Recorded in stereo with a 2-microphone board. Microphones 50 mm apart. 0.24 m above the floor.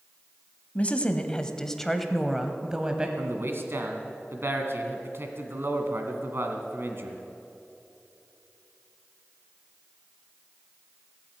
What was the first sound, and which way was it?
A woman speaking, 30° left (ahead or behind).